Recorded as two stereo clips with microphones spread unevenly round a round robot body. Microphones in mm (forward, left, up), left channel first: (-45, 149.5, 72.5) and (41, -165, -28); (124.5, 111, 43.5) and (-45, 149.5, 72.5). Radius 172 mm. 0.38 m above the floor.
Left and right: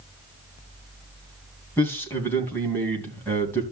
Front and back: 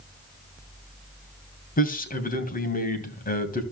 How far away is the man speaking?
About 2.5 m.